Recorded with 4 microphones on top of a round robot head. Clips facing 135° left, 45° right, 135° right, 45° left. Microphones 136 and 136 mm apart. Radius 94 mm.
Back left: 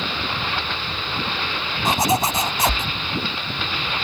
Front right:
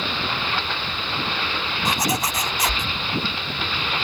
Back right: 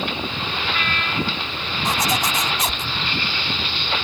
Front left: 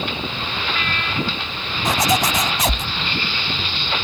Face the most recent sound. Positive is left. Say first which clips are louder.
# back left 5 dB, front left 4 dB
turn(degrees=70)